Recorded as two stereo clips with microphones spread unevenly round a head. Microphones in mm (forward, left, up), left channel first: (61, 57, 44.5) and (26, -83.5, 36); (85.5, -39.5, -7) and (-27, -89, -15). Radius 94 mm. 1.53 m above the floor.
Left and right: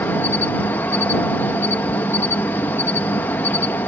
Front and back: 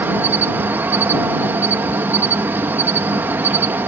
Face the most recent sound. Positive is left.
turn(degrees=140)